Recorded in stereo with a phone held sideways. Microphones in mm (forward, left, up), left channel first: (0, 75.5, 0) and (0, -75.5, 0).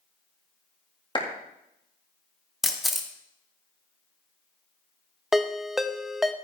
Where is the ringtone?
Centre (ahead or behind), 0.6 m.